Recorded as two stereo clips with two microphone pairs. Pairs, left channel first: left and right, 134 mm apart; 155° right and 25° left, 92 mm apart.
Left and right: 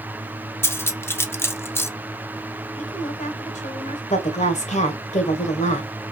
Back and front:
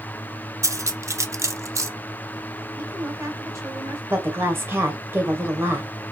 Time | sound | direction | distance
0.6 | cutlery clinking | 35° left | 0.6 m
2.8 | a woman speaking | 80° left | 2.5 m
4.1 | a woman speaking | 85° left | 1.9 m